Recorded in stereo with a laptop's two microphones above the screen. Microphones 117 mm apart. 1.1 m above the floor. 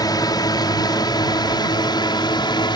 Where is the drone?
35° left (ahead or behind); by 2.8 s 40° left (ahead or behind).